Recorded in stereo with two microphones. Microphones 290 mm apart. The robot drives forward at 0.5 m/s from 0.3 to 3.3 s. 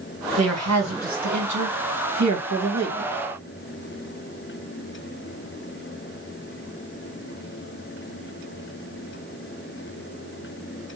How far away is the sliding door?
I don't hear a sliding door.